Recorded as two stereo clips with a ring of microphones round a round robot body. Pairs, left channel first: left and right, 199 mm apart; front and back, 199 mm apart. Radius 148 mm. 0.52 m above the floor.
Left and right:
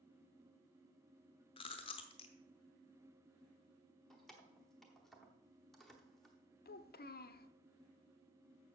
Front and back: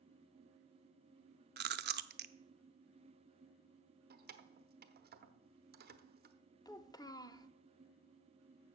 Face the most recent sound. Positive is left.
turn(degrees=70)